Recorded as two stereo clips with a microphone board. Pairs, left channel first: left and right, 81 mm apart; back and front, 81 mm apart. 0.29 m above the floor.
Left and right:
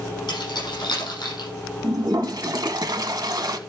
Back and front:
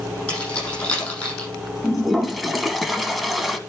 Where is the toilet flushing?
90° right, 1.0 m.